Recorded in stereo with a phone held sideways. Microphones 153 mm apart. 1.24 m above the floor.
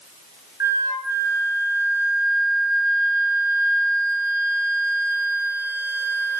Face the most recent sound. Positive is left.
turn(degrees=-20)  # may be behind; listen again after turning